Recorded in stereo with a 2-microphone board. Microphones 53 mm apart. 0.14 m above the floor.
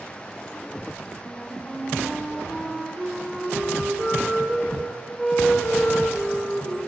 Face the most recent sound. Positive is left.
turn(degrees=10)  # may be behind; listen again after turning